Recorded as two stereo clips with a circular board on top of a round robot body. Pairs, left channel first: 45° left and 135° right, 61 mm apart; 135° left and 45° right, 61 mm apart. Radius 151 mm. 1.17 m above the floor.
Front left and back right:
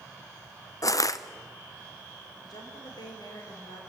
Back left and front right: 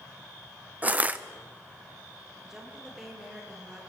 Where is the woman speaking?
35° left, 5.5 m.